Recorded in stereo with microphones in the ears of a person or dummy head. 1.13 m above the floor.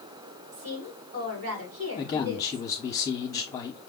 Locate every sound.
0.5 s a woman speaking: 75° right (ahead or behind), 3 m
2.0 s a man speaking: 15° left (ahead or behind), 0.8 m